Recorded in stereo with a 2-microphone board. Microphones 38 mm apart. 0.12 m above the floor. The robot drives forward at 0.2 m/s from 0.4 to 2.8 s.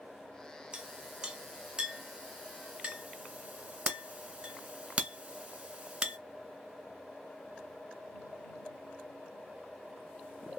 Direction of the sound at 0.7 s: 20° right (ahead or behind).